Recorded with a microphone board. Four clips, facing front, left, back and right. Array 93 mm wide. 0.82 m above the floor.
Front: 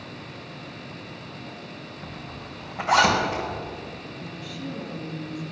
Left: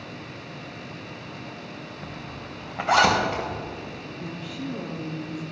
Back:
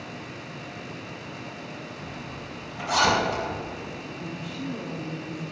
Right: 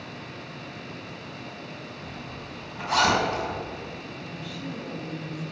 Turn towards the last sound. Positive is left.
turn(degrees=120)